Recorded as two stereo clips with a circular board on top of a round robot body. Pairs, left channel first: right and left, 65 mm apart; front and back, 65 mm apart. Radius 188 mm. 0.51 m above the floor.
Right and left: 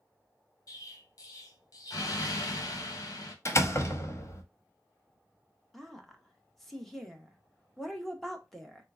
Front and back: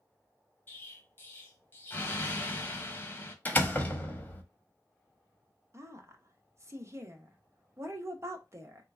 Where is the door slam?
60° right, 1.1 m.